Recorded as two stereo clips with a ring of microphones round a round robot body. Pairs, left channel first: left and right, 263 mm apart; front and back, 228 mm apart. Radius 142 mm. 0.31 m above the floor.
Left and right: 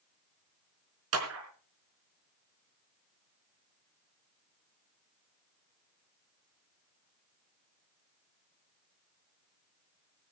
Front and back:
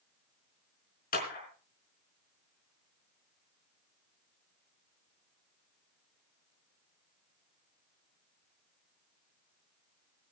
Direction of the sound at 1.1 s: 55° right.